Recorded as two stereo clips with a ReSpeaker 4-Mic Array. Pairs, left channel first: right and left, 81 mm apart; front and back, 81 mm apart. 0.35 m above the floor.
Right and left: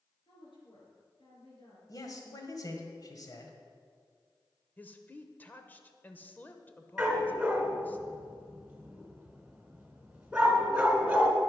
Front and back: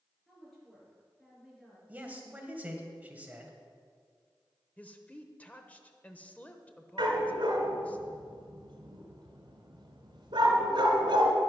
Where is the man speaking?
115° right, 1.8 m.